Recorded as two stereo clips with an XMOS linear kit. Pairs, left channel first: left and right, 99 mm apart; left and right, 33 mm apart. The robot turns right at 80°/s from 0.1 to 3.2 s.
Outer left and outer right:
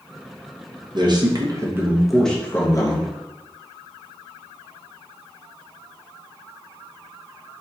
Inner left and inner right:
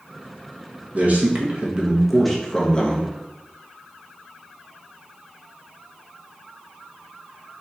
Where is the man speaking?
100° right, 1.0 m; by 3.1 s 70° left, 1.0 m.